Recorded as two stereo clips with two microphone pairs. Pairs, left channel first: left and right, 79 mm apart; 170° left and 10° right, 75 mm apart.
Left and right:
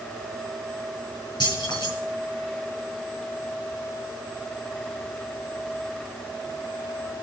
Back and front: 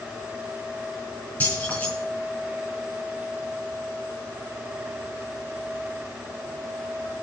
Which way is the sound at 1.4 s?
100° left.